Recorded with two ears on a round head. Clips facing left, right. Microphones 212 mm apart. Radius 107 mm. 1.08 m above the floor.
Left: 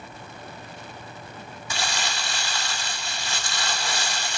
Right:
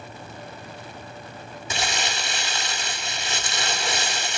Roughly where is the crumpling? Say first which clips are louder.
Right 2 dB; centre.